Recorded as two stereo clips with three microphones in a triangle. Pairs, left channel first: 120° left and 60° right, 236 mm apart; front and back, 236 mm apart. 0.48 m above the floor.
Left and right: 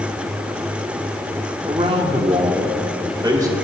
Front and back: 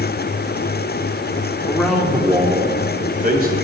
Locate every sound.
1.7 s a man speaking: 55° right, 1.0 m; by 3.5 s 140° right, 1.9 m